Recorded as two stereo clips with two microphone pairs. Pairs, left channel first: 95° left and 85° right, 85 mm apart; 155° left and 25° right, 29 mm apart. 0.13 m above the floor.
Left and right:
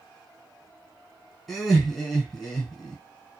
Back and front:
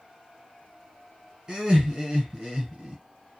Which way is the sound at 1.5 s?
Straight ahead.